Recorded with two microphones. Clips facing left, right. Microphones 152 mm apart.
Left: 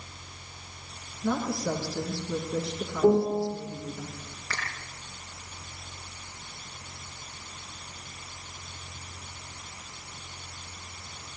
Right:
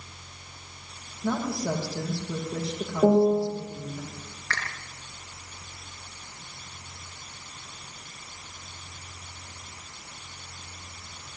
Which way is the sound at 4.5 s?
5° left (ahead or behind).